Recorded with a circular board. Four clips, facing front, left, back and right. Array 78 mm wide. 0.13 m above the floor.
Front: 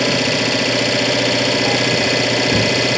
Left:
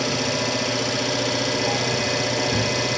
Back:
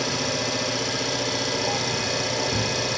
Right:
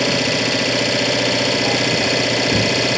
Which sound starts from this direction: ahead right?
An engine running, at 0.0 s.